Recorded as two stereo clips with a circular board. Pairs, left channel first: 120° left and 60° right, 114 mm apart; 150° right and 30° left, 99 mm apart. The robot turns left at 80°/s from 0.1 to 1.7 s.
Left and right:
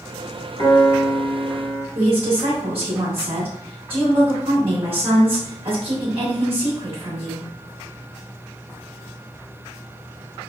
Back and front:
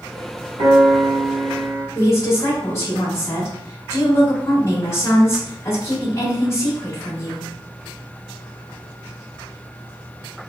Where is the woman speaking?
90° right, 1.6 m.